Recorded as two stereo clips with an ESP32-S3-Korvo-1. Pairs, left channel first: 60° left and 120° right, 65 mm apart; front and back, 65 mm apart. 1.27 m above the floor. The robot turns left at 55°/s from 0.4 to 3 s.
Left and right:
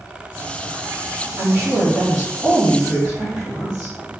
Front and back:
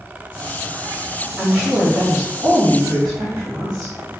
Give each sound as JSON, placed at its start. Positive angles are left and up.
{"t": 1.4, "sound": "a woman speaking", "azimuth_deg": -120, "distance_m": 1.3}